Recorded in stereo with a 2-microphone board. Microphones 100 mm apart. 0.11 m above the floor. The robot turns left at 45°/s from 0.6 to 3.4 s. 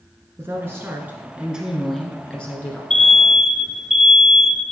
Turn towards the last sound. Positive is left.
turn(degrees=-5)  # may be behind; listen again after turning